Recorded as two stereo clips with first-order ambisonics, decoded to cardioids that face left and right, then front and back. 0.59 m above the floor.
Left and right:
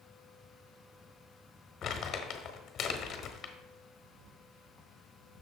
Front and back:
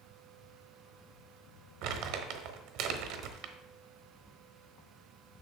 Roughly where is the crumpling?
Behind left.